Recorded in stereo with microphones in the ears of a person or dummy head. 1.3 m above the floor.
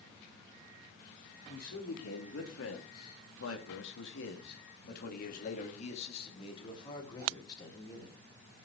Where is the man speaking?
65° left (ahead or behind), 3.5 m; by 8.2 s 15° left (ahead or behind), 4.5 m.